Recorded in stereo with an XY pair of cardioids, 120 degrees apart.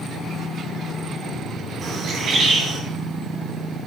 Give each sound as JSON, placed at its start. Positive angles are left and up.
{"t": 1.8, "sound": "a bird", "azimuth_deg": -50, "distance_m": 8.5}